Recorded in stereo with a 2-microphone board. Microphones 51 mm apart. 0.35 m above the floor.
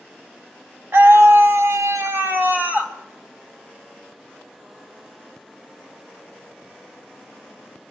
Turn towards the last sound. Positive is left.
turn(degrees=-25)  # may be behind; listen again after turning